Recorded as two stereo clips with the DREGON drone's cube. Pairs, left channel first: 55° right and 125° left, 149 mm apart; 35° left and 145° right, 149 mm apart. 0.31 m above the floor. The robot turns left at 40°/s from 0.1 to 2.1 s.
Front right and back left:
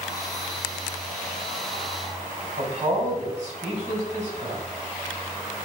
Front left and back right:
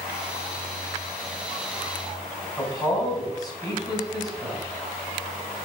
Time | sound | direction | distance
2.6 | a man speaking | 95° left | 3 m